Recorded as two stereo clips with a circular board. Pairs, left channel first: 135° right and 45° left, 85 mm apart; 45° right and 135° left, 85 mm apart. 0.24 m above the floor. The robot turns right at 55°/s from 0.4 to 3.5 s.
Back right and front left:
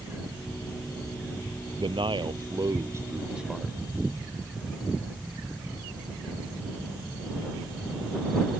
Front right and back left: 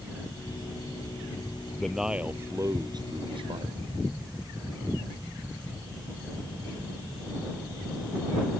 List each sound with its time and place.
1.8 s a man speaking: 35° left; by 3.8 s 130° left